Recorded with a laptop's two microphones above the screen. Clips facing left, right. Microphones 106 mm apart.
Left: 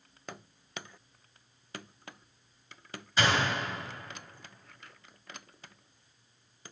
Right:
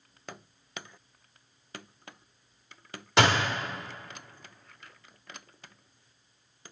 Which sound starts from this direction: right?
A door slam, at 3.2 s.